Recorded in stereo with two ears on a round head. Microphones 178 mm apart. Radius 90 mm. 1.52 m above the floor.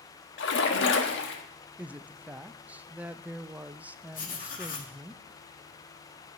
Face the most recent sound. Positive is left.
turn(degrees=45)  # may be behind; listen again after turning